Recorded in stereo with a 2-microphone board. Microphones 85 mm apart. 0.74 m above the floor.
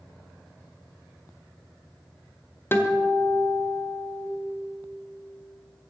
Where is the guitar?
25° left (ahead or behind), 1.4 m.